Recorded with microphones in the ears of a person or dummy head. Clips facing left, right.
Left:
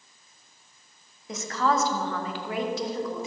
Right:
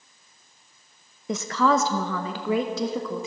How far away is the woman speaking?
About 0.8 m.